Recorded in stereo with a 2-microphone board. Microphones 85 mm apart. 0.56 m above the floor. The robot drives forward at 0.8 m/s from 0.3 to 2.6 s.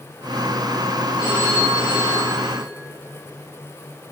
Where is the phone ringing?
60° left (ahead or behind), 6 m; by 2.6 s 50° left (ahead or behind), 6.5 m.